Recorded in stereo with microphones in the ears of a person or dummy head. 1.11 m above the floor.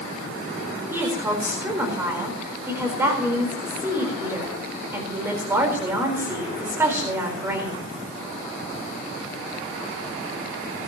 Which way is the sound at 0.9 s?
10° right (ahead or behind).